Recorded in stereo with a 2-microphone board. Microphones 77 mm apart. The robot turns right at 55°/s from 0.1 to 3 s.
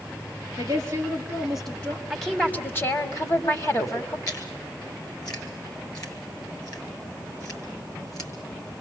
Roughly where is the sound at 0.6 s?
Ahead right.